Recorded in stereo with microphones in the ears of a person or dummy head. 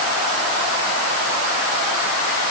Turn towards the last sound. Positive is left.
No sound to turn to.